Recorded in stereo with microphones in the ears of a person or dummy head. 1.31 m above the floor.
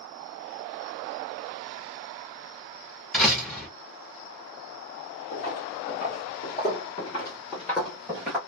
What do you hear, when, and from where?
3.1 s a door slam: 5° left (ahead or behind), 1.2 m
5.3 s footsteps: 50° left (ahead or behind), 1.9 m; by 8.4 s 5° right (ahead or behind), 1.3 m